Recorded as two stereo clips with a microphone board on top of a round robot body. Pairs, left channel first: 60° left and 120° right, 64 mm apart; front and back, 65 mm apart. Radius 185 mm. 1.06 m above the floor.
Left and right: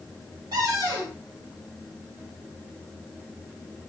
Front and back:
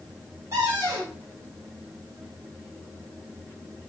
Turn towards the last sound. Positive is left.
turn(degrees=-130)